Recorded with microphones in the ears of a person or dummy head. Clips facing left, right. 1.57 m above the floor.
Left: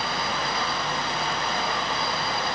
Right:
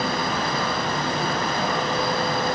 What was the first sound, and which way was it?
Only background noise.